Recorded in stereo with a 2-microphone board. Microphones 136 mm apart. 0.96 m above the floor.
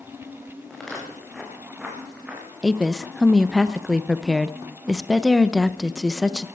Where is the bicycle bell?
I don't hear a bicycle bell.